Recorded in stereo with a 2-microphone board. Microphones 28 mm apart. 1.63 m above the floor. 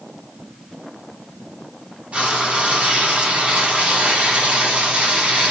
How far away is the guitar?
I don't hear a guitar.